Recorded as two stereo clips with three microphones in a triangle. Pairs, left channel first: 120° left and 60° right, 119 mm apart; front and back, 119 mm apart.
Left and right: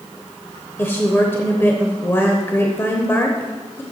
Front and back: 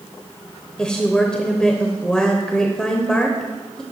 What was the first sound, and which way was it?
A woman speaking, 75° left.